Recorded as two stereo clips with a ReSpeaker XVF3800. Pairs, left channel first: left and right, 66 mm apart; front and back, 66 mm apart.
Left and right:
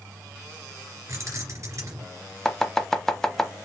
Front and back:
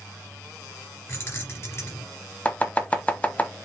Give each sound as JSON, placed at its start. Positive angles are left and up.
{"t": 1.1, "sound": "keys jangling", "azimuth_deg": -45, "distance_m": 2.0}
{"t": 2.5, "sound": "chopping", "azimuth_deg": 15, "distance_m": 0.8}